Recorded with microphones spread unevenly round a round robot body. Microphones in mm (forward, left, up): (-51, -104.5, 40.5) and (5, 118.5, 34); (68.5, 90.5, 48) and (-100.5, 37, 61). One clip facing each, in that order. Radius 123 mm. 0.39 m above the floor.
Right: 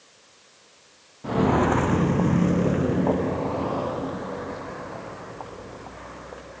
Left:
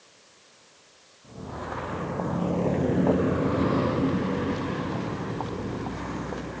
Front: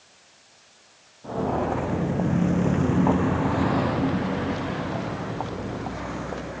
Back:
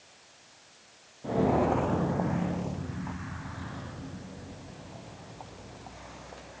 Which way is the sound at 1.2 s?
85° right.